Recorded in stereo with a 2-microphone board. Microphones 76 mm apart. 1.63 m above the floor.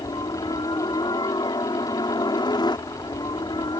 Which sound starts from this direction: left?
A helicopter, at 0.0 s.